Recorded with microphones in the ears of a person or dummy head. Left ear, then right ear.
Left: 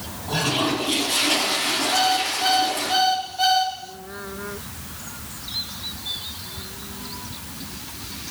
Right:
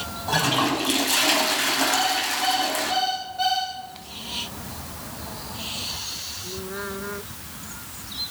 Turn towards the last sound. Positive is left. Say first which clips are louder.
# left 2 dB
turn(degrees=0)  # may be behind; listen again after turning